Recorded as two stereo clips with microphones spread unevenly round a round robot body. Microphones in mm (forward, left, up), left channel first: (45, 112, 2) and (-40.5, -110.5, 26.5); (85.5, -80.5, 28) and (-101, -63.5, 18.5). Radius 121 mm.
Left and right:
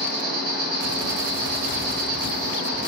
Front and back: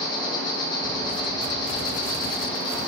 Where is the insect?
70° right, 0.8 m.